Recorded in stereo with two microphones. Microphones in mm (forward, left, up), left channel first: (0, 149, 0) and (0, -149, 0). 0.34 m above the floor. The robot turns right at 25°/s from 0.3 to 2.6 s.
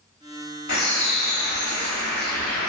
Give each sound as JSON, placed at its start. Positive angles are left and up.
{"t": 0.7, "sound": "a bird", "azimuth_deg": 80, "distance_m": 0.8}